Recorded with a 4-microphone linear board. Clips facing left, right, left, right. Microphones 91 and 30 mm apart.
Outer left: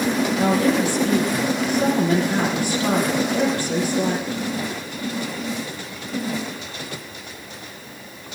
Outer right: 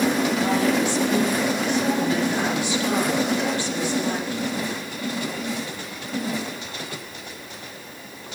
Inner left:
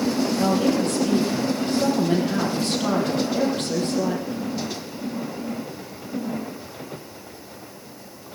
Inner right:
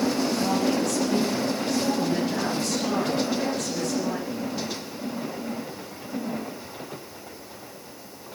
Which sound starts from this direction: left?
A woman speaking, at 0.4 s.